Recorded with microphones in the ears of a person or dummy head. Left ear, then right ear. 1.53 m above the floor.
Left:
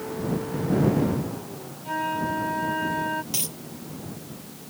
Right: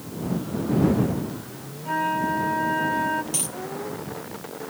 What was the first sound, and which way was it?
A flute, 5° right (ahead or behind).